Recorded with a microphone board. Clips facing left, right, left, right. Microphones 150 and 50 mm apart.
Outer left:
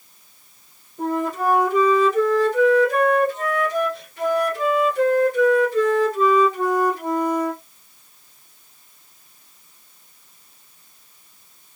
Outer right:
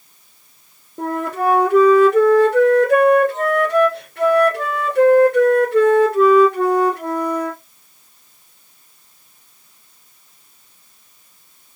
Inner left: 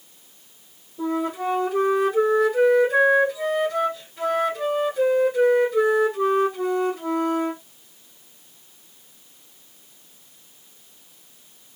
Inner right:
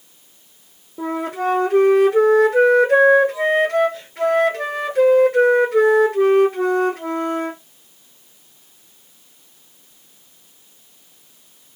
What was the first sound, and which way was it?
A flute, 70° right (ahead or behind).